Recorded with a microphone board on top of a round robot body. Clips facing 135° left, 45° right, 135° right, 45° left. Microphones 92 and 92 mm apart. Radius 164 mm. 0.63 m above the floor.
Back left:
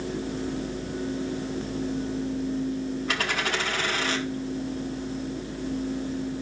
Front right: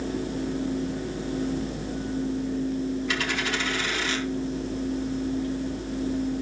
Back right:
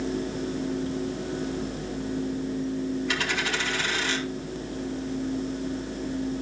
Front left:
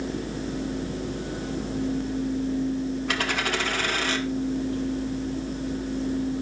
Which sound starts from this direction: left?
A dropped coin, at 3.1 s.